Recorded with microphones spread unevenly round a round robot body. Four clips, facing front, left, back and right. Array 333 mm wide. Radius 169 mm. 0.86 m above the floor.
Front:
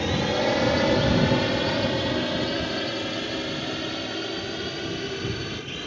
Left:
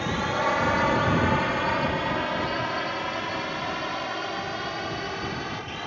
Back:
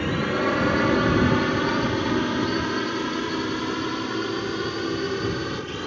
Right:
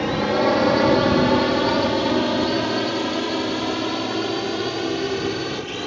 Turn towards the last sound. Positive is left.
turn(degrees=-125)